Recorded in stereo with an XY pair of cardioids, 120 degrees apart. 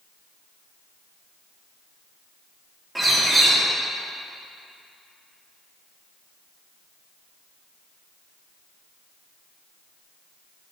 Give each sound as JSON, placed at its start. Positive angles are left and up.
{"t": 3.0, "sound": "a bird", "azimuth_deg": -10, "distance_m": 3.0}